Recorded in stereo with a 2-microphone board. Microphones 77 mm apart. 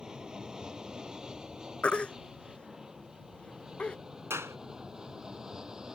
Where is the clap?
35° right (ahead or behind).